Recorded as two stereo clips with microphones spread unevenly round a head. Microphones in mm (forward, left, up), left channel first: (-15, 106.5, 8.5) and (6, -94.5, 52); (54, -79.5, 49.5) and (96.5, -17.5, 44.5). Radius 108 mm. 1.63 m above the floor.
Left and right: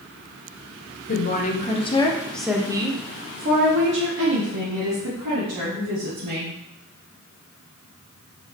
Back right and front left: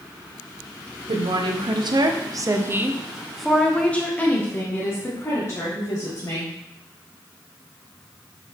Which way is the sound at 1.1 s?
50° left.